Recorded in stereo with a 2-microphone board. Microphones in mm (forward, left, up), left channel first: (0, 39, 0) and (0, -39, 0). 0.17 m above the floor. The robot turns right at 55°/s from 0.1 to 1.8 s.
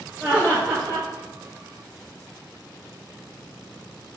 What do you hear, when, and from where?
0.2 s laughter: 170° right, 1.5 m; by 1.1 s 125° right, 1.5 m